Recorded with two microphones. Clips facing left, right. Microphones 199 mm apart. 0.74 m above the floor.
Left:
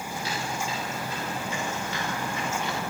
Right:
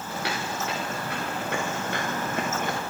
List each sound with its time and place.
0.1 s footsteps: 70° right (ahead or behind), 5.5 m; by 2.8 s 50° right (ahead or behind), 4.5 m